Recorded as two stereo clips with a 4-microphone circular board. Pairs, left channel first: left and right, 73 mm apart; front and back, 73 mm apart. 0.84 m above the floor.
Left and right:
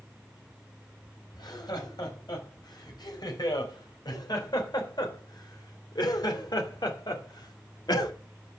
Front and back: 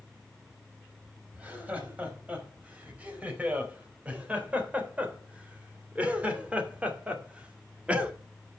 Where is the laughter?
110° left, 5 m; by 8.1 s 105° left, 1.8 m.